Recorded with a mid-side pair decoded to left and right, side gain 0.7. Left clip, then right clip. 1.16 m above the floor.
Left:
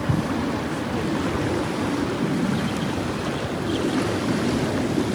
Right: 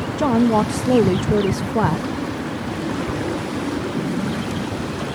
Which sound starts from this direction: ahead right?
A woman speaking, at 0.2 s.